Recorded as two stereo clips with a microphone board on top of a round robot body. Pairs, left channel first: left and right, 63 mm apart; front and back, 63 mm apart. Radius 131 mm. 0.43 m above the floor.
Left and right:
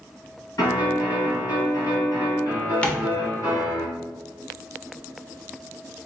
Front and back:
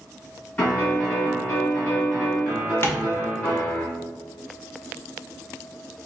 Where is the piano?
60° left, 2 m.